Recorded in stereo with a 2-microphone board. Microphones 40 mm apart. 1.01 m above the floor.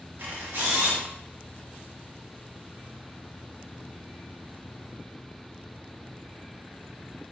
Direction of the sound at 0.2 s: 70° right (ahead or behind).